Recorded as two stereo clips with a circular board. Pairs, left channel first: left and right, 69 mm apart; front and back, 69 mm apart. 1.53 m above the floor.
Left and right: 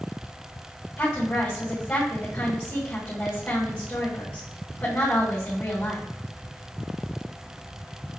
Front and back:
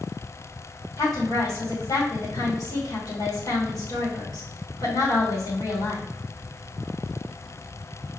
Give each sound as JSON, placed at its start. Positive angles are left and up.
{"t": 1.0, "sound": "a woman speaking", "azimuth_deg": 20, "distance_m": 2.0}